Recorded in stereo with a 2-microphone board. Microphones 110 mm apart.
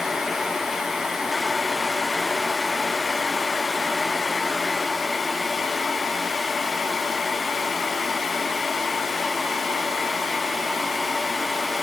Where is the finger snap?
No finger snap in this recording.